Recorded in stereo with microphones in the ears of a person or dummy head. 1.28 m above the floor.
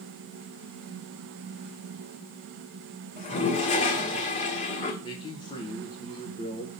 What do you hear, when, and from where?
3.2 s a toilet flushing: 35° left (ahead or behind), 1.5 m
5.0 s a man speaking: 25° left (ahead or behind), 1.1 m